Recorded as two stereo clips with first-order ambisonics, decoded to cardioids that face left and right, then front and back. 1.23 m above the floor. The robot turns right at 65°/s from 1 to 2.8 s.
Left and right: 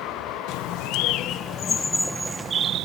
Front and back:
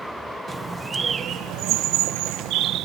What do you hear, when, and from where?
0.5 s a bird: 110° left; by 2.9 s 135° right